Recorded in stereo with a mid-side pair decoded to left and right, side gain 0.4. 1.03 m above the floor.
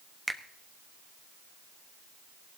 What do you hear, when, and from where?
0.3 s a finger snap: 5° right, 1.2 m